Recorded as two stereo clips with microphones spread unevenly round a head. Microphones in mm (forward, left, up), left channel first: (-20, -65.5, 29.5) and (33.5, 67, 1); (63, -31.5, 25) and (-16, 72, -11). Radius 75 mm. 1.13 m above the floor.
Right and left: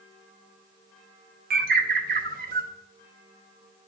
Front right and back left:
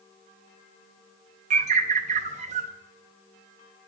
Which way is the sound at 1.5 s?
95° left.